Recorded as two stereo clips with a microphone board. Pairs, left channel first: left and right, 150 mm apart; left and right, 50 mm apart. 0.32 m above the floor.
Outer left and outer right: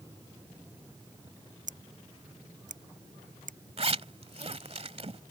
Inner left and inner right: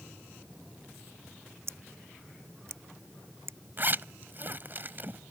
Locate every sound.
1.7 s scissors: 55° right (ahead or behind)
3.8 s a zipper: 40° right (ahead or behind)